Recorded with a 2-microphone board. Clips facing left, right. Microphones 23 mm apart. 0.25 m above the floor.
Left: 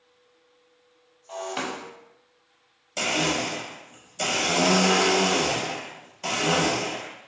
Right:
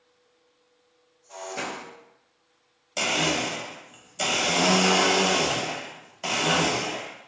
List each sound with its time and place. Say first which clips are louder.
1.3 s breaking glass: left 2 dB; 85° left, 1.0 m
3.0 s a blender: even; 10° right (ahead or behind), 0.6 m